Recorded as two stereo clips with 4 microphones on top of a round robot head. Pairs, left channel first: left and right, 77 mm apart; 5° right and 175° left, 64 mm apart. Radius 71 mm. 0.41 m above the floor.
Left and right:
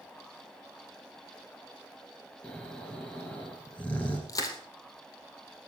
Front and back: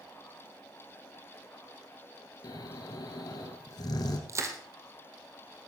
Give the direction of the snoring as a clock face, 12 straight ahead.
12 o'clock.